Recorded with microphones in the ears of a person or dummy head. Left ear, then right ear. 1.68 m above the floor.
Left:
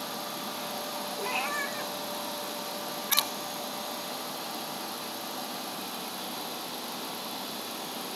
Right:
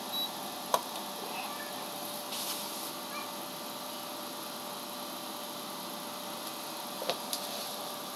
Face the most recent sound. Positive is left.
turn(degrees=70)  # may be behind; listen again after turning